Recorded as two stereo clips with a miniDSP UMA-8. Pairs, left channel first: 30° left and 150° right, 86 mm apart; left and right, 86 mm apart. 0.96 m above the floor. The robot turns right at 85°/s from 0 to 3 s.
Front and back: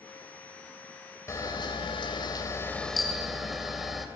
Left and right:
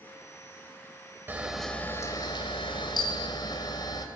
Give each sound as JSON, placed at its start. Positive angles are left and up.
{"t": 1.3, "sound": "a camera shutter", "azimuth_deg": -25, "distance_m": 3.0}